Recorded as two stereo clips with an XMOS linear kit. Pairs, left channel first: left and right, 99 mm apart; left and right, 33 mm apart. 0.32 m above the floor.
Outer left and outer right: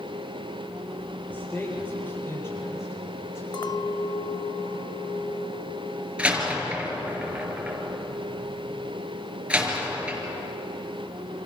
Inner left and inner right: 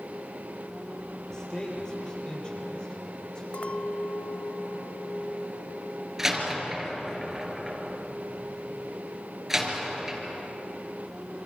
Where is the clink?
45° left (ahead or behind), 0.7 m.